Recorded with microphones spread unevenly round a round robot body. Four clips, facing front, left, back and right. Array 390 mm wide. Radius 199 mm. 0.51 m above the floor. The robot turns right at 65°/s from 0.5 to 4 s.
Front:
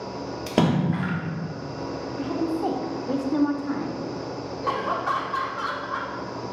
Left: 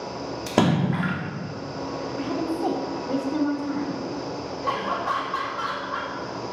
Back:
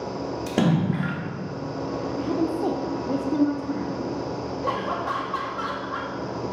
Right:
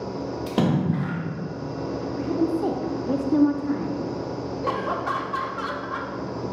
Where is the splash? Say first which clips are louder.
Left 2 dB, front 1 dB; 50° left, 1.0 m; by 1.2 s 95° left, 1.0 m.